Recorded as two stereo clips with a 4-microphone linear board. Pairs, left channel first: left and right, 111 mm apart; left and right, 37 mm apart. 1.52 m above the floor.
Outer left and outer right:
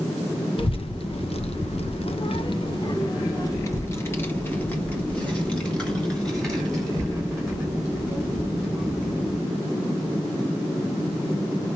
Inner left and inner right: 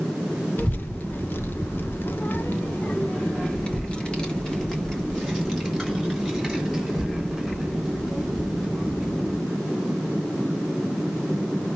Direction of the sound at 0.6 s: 55° left (ahead or behind).